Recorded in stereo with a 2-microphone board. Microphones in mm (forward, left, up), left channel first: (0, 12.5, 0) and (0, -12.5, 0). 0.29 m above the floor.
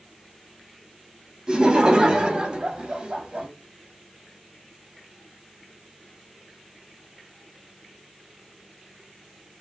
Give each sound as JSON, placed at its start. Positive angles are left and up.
{"t": 1.5, "sound": "laughter", "side_deg": -35, "distance_m": 1.9}